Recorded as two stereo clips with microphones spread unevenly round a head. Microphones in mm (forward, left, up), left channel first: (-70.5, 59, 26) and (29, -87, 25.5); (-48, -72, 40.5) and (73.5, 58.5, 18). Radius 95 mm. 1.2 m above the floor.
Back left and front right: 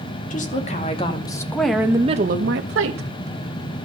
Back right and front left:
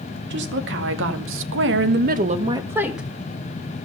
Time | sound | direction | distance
0.3 | a woman speaking | 75° left | 2.5 m